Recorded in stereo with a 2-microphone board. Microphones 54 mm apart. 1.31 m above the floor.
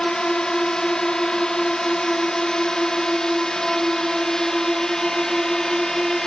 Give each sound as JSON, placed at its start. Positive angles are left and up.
{"t": 0.0, "sound": "a drone", "side_deg": 10}